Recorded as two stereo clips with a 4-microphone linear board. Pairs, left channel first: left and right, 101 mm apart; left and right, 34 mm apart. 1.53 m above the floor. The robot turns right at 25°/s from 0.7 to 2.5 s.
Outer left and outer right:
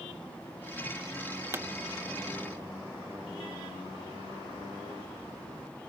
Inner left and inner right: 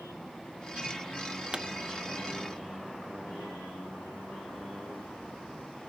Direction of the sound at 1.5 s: 25° right (ahead or behind).